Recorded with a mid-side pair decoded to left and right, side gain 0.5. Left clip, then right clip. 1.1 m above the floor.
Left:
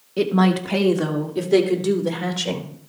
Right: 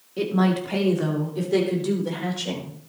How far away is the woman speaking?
About 1.7 m.